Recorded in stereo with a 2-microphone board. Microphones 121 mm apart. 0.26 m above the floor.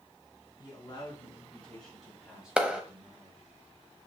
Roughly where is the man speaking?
Left.